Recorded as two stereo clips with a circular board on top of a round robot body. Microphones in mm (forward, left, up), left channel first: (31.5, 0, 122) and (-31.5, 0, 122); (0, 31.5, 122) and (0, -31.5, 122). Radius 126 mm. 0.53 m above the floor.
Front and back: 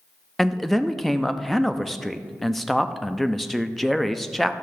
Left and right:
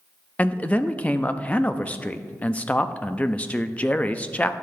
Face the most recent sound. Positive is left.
turn(degrees=85)